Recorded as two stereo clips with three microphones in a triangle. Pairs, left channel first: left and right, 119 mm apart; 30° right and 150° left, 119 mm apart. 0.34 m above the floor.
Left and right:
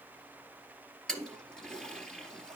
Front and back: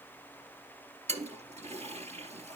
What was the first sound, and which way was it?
A toilet flushing, 175° left.